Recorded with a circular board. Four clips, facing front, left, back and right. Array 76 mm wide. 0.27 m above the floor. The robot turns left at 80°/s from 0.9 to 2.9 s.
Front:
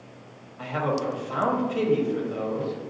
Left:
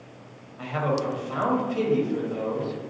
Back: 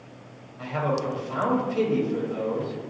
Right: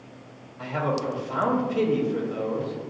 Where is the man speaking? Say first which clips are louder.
Left 1 dB, even; 60° left, 1.0 m; by 2.7 s 90° right, 1.0 m.